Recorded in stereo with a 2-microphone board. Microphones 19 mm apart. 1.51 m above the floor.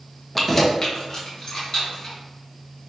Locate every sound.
0.3 s keys jangling: centre (ahead or behind), 0.5 m; by 2.1 s 45° left (ahead or behind), 2.5 m